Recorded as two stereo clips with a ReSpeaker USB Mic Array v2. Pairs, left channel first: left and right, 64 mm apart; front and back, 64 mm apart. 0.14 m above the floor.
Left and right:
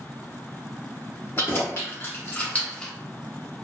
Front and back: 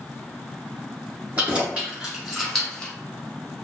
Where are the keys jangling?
120° left, 1.7 m; by 2.9 s 25° left, 1.0 m.